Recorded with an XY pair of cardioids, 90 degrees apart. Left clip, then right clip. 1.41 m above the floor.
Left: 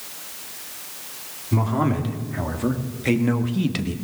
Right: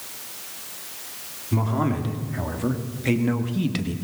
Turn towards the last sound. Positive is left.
turn(degrees=15)